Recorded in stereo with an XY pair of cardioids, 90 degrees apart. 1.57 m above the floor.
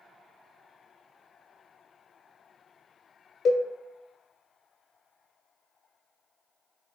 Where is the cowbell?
65° left, 0.7 m.